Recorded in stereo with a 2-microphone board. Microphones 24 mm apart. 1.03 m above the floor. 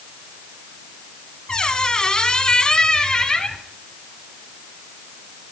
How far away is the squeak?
About 1.0 m.